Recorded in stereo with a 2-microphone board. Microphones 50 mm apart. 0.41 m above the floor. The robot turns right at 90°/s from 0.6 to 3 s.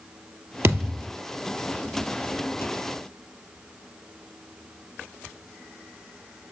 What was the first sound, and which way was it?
A thud, 55° right.